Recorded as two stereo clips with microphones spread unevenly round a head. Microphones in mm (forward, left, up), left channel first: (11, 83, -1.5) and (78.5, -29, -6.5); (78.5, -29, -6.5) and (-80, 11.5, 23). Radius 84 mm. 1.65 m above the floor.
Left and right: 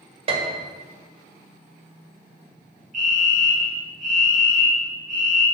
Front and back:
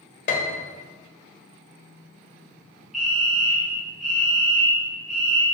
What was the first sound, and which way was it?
A piano, 50° right.